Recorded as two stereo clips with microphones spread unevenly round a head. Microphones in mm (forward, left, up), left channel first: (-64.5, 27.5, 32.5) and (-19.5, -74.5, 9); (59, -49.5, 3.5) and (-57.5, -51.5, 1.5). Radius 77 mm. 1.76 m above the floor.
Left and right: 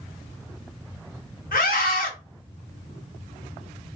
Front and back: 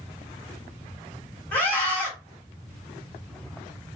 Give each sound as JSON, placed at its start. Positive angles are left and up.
{"t": 1.5, "sound": "a scream", "azimuth_deg": 80, "distance_m": 1.1}